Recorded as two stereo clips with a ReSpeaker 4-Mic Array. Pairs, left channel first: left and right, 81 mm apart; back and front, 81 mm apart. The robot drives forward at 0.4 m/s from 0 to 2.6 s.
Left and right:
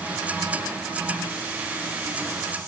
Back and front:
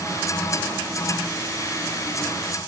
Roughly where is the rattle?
No rattle in this recording.